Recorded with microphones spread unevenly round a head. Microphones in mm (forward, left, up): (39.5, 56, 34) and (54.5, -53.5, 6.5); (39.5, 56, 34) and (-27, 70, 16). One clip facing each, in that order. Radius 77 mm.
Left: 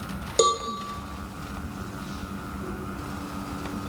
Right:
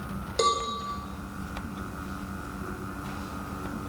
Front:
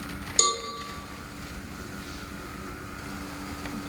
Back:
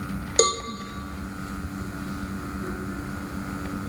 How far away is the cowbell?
About 0.9 m.